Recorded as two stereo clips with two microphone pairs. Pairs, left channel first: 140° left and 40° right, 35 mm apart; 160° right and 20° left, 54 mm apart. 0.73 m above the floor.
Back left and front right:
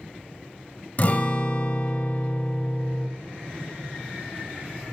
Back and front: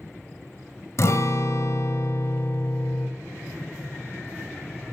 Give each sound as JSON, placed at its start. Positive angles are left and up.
{"t": 1.0, "sound": "a guitar", "azimuth_deg": 180, "distance_m": 0.8}